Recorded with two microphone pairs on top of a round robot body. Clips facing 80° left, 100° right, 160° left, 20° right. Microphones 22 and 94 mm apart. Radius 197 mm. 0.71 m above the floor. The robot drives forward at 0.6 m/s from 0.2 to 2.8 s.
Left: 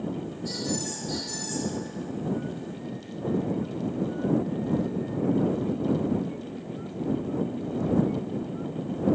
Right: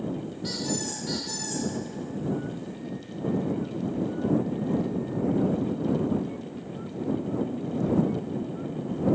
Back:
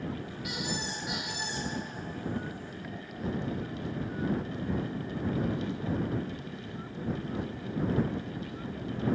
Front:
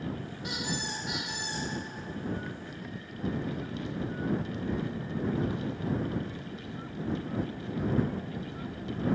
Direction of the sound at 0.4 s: 75° right.